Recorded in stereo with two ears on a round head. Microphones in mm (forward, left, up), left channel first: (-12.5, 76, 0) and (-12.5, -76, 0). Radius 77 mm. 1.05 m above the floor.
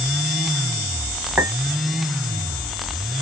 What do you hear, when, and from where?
1.4 s a clink: centre (ahead or behind), 2 m